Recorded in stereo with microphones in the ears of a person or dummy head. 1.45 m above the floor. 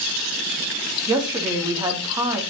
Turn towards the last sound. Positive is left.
turn(degrees=-15)  # may be behind; listen again after turning